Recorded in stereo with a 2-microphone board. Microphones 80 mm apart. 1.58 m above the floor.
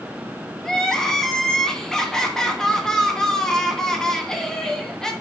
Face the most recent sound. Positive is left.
turn(degrees=5)  # may be behind; listen again after turning